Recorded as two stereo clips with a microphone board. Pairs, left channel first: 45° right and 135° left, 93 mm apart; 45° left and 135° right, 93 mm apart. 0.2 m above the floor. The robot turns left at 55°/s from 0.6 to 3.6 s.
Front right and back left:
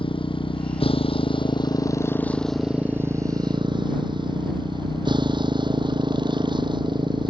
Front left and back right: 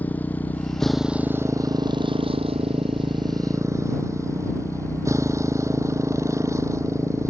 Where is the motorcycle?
25° right; by 7.3 s 170° left.